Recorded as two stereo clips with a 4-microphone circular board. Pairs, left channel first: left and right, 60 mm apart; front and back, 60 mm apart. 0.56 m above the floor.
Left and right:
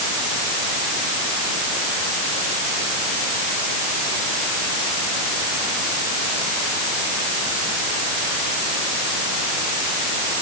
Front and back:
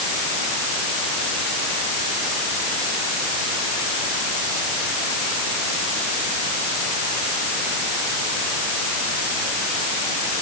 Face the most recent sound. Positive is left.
No sound to turn to.